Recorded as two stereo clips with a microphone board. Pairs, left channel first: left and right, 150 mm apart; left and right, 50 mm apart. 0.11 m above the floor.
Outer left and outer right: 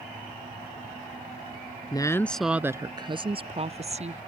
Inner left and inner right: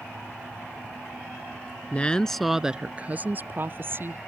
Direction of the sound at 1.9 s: 25° left (ahead or behind).